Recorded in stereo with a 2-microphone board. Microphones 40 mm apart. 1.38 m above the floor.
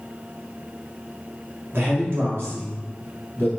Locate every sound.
1.7 s a man speaking: 80° right, 1.0 m